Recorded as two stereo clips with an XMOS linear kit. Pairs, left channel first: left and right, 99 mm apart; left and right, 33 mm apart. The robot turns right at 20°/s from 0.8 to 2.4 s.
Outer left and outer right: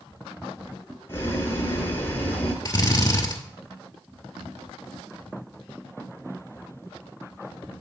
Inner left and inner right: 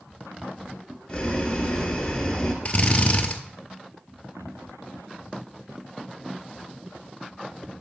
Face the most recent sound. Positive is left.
turn(degrees=40)  # may be behind; listen again after turning